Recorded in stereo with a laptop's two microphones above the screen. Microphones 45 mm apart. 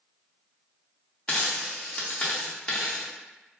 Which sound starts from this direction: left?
A dropped coin, at 1.3 s.